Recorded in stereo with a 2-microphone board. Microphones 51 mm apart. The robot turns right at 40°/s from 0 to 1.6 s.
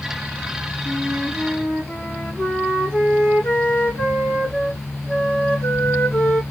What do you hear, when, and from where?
0.8 s a flute: 10° right, 2.5 m; by 6.4 s 20° left, 2.5 m